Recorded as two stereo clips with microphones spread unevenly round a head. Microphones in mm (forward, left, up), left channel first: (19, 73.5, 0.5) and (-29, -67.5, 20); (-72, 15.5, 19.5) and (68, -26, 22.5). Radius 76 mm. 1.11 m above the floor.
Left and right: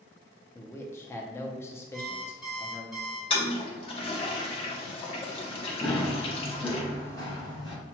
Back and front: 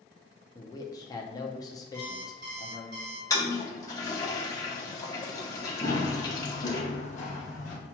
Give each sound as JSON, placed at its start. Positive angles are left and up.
{"t": 0.6, "sound": "a man speaking", "azimuth_deg": 120, "distance_m": 0.7}
{"t": 1.9, "sound": "an alarm clock", "azimuth_deg": -25, "distance_m": 1.7}
{"t": 3.3, "sound": "a toilet flushing", "azimuth_deg": 105, "distance_m": 0.9}
{"t": 5.8, "sound": "running footsteps", "azimuth_deg": 165, "distance_m": 1.1}